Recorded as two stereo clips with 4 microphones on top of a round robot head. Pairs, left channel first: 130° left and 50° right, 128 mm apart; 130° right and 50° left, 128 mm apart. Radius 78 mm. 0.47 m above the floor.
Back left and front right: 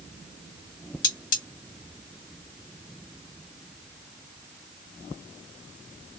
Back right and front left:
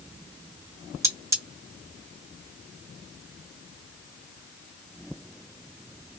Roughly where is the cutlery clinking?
Behind left.